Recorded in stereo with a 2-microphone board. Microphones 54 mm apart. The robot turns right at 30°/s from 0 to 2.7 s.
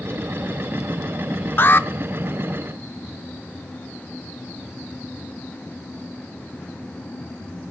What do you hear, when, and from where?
1.6 s an alarm: 40° left (ahead or behind), 0.5 m